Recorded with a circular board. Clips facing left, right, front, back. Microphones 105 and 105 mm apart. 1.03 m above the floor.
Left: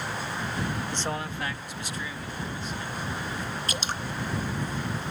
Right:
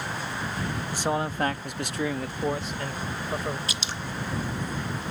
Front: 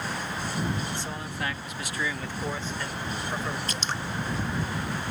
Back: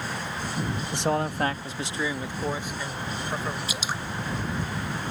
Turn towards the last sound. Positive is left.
turn(degrees=105)